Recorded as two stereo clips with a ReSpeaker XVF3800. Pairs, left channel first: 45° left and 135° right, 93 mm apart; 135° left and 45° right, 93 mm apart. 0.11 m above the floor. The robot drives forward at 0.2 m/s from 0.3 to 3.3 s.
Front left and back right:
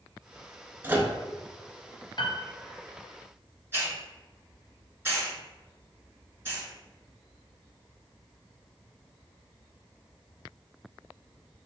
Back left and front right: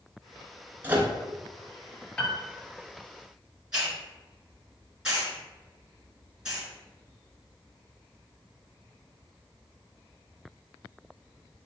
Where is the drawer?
I don't hear a drawer.